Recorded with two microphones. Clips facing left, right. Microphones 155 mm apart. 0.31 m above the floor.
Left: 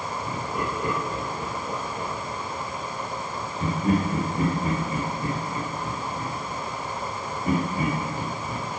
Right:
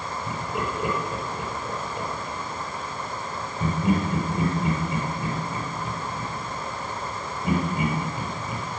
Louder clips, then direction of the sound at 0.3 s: Right 1 dB; 10° right (ahead or behind).